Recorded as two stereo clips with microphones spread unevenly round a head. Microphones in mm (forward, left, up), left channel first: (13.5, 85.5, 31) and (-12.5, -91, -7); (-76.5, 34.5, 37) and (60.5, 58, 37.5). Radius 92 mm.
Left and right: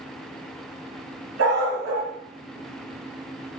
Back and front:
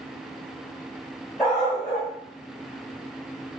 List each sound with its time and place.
1.4 s a dog barking: 85° right, 3 m